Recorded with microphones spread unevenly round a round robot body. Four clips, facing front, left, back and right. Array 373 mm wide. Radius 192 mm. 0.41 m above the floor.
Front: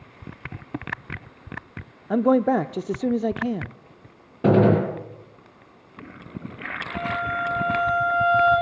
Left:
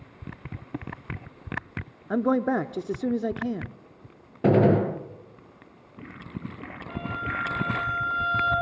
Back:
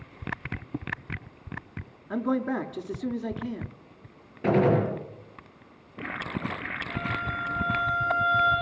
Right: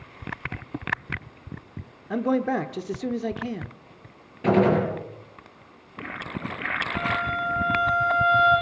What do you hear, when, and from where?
2.1 s a man speaking: 25° left, 0.8 m
4.4 s a gunshot: 20° left, 6.5 m
6.9 s a violin: 150° left, 8.5 m